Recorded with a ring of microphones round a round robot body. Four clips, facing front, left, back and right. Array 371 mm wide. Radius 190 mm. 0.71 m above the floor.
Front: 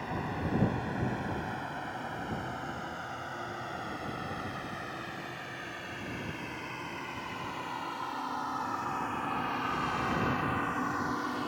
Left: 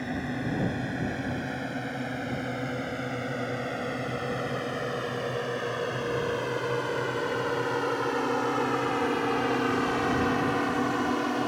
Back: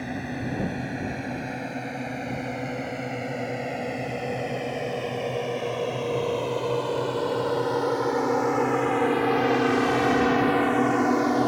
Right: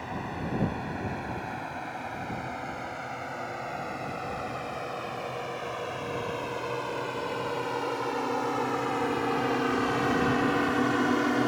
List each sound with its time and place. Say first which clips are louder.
0.0 s a drone: left 3 dB, back 4 dB; 140° left; by 11.5 s 160° right